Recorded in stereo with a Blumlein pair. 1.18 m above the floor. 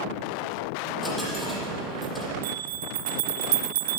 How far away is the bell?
About 2.0 m.